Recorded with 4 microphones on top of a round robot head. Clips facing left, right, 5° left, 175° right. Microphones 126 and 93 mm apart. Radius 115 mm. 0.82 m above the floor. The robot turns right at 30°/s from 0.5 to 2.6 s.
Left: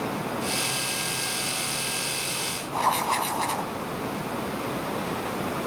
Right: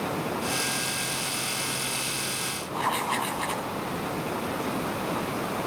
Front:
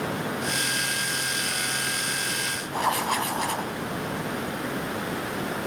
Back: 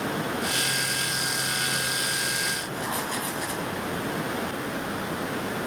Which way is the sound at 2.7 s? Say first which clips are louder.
Left 3 dB, front 9 dB; 35° left.